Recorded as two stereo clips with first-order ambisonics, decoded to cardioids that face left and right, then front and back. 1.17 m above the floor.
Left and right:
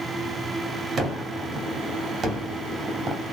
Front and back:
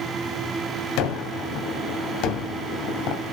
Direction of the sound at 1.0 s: 25° right.